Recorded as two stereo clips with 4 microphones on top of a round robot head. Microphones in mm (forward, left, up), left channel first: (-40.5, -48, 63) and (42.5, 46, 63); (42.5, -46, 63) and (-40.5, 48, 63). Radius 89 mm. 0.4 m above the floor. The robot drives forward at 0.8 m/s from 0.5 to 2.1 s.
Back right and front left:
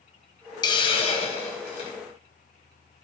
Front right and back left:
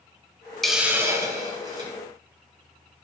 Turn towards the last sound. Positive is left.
turn(degrees=-175)